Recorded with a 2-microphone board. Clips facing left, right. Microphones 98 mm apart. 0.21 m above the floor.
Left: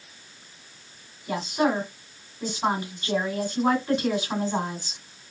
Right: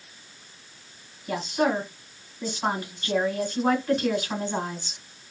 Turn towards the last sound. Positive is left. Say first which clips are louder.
# even
turn(degrees=15)  # may be behind; listen again after turning